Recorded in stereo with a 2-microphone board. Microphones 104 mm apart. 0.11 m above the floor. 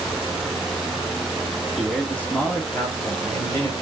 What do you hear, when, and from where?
1.8 s a man speaking: centre (ahead or behind), 1.3 m; by 3.7 s 50° left (ahead or behind), 1.8 m